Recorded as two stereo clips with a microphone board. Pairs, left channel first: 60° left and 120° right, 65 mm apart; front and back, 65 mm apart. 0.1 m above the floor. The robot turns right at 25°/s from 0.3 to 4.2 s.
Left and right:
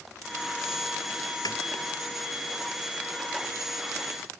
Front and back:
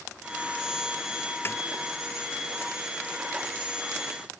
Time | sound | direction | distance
1.4 | a snare drum | 55° left | ?